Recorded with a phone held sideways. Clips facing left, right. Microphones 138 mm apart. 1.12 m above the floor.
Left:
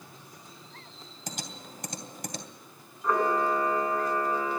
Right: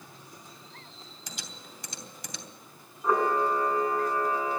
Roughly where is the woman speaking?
I don't hear a woman speaking.